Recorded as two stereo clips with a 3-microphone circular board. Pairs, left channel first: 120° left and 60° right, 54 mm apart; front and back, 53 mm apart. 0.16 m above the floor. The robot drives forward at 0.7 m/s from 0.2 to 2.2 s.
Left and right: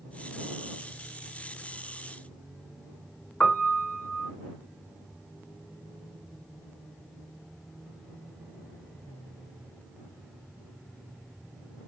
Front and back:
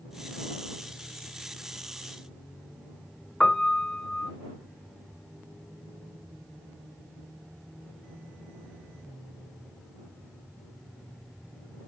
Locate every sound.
3.4 s a piano: 75° left, 1.0 m